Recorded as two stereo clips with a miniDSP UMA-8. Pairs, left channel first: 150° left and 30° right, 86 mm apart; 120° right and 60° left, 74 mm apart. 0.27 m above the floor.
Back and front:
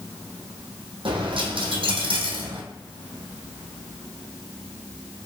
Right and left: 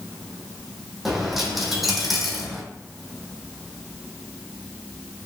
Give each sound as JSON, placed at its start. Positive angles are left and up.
{"t": 1.1, "sound": "a dropped coin", "azimuth_deg": -30, "distance_m": 1.1}